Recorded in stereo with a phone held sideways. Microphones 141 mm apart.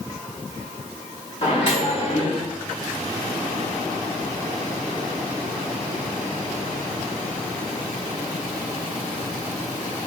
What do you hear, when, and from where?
1.4 s a microwave: 40° left (ahead or behind), 2.0 m